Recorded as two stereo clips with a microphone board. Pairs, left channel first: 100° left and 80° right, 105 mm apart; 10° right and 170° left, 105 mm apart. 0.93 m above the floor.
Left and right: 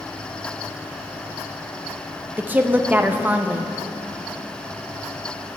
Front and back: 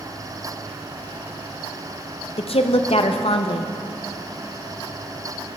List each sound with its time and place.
2.4 s a woman speaking: 10° right, 0.6 m